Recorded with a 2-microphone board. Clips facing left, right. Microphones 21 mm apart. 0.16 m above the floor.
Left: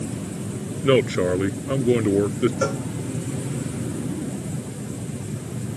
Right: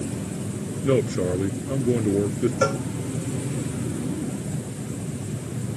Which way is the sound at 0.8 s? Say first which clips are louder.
Left 4 dB; 55° left (ahead or behind).